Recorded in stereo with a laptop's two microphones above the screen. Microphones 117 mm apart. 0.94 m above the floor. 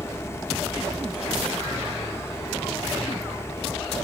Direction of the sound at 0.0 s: 25° left (ahead or behind).